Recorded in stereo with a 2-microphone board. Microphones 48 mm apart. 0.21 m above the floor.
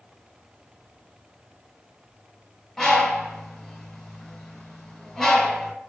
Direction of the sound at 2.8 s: 5° left (ahead or behind).